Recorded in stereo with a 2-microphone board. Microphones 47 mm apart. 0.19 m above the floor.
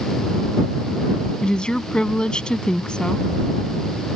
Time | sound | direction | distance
1.4 | a woman speaking | 20° left (ahead or behind) | ?